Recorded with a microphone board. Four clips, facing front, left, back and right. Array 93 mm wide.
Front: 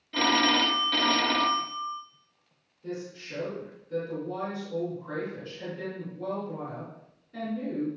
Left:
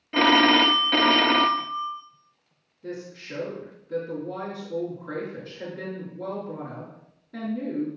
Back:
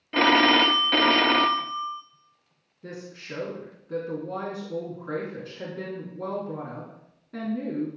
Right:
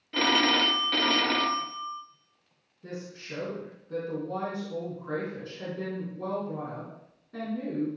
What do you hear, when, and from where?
0.1 s a phone ringing: 140° left, 0.5 m
2.8 s a woman speaking: 175° right, 4 m